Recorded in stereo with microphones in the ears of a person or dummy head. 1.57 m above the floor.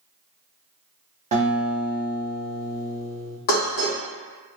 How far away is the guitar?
About 0.6 m.